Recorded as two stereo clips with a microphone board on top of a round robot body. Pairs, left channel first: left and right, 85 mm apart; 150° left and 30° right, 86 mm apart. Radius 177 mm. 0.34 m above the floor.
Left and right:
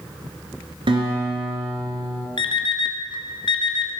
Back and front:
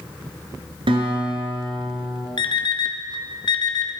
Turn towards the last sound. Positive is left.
turn(degrees=120)